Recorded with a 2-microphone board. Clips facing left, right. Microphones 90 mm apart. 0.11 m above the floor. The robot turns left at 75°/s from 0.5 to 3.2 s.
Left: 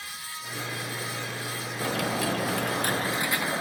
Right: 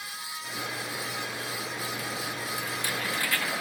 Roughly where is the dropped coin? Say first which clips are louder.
Left 7 dB; behind left.